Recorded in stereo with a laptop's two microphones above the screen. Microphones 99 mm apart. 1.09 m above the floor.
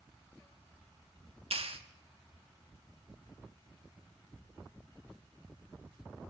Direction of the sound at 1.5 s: 70° right (ahead or behind).